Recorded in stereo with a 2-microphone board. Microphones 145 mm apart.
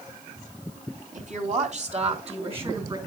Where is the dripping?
No dripping in this recording.